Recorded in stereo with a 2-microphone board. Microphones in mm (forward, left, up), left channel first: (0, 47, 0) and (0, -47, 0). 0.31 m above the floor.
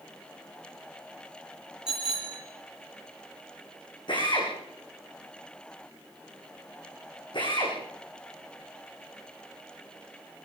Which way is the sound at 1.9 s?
10° right (ahead or behind).